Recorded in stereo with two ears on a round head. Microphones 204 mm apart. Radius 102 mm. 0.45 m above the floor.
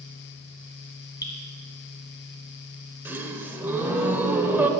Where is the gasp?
10° right (ahead or behind), 0.6 m.